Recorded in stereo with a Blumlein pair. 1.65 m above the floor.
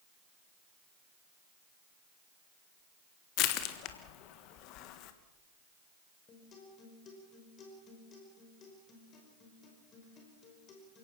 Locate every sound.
3.4 s crushing: 40° left, 1.6 m
6.3 s a guitar: 25° left, 5 m